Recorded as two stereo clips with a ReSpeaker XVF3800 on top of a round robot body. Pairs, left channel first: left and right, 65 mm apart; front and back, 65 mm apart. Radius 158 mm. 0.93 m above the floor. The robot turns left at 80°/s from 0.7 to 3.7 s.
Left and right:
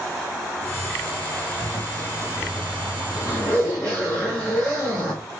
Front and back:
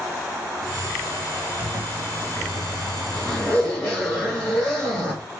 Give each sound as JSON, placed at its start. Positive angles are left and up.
{"t": 1.6, "sound": "a zipper", "azimuth_deg": -145, "distance_m": 0.6}